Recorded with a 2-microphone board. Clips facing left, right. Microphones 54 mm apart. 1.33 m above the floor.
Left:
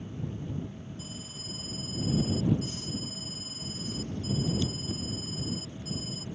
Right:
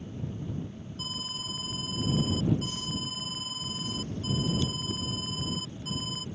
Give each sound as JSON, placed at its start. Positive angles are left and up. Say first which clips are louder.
{"t": 1.0, "sound": "an alarm", "louder": "right 5 dB", "side_deg": -70}